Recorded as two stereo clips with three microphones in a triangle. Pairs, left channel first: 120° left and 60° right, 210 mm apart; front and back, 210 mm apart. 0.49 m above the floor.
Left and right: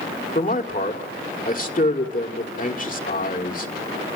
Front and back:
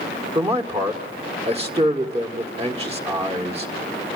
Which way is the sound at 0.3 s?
135° left.